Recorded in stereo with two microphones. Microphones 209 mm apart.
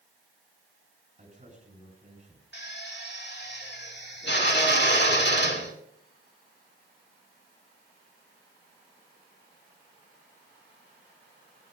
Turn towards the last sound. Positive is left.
turn(degrees=55)  # may be behind; listen again after turning